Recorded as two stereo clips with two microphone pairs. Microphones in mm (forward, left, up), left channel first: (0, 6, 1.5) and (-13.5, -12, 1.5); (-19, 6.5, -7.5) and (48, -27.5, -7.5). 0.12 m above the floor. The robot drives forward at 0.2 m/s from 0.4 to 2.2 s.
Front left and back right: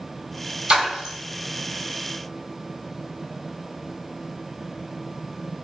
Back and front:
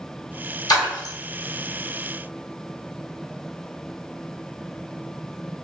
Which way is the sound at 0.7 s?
170° right.